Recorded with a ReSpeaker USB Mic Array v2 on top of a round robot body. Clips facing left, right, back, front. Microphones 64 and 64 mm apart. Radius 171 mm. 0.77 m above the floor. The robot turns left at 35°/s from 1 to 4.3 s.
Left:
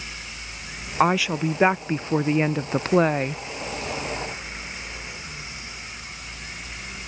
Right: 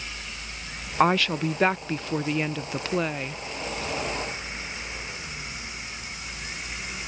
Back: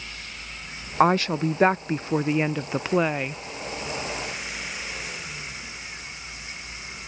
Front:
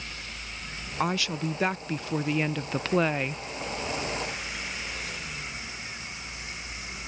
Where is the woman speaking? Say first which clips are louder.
Left 1 dB, back 9 dB; 175° left; by 3.4 s 90° left.